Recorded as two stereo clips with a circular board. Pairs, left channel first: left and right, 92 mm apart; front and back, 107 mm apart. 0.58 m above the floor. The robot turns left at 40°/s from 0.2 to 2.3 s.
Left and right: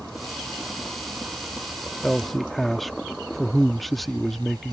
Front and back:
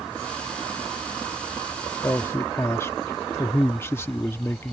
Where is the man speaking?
15° left; by 4.7 s 5° left.